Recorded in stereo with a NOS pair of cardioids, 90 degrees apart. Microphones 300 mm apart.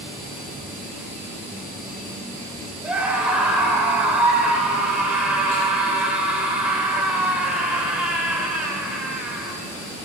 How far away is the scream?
About 6.5 m.